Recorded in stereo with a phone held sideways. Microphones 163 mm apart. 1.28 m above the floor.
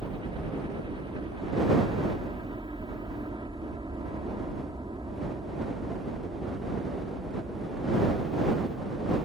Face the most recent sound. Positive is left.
turn(degrees=-25)  # may be behind; listen again after turning